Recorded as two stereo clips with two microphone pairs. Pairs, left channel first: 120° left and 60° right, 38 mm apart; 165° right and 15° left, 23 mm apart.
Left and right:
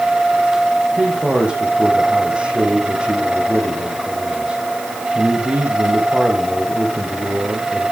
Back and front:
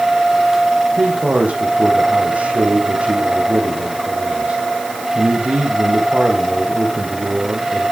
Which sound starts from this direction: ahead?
A man speaking, at 1.0 s.